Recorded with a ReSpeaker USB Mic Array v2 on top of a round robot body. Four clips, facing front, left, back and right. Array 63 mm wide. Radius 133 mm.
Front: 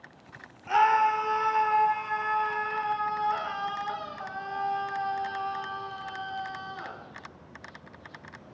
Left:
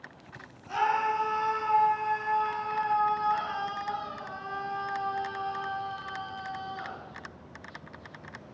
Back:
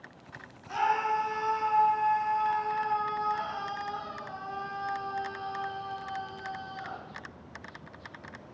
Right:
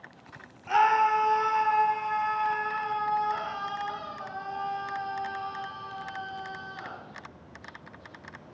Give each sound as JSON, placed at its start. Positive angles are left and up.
{"t": 0.7, "sound": "a scream", "azimuth_deg": -40, "distance_m": 3.5}